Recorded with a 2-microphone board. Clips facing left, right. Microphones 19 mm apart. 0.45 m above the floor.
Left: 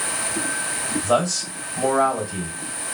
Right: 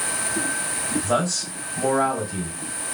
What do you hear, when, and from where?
1.0 s a man speaking: 45° left (ahead or behind), 2.5 m